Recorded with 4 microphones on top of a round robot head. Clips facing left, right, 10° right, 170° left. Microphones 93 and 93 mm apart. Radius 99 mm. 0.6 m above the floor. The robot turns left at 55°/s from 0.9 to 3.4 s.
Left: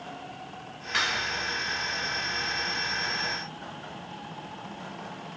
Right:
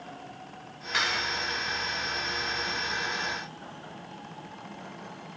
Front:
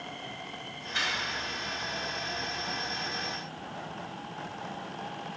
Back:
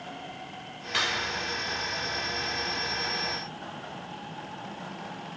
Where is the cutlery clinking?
175° right, 1.6 m; by 1.2 s 165° left, 1.6 m.